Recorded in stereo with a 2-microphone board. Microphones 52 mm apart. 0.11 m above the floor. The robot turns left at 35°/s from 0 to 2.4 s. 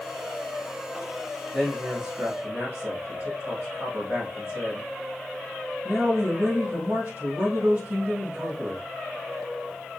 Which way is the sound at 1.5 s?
25° right.